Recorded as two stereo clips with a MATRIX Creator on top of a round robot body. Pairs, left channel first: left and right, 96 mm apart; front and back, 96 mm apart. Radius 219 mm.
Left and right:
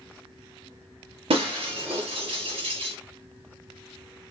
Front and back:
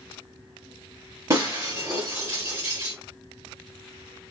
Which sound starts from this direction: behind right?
Breaking glass, at 1.3 s.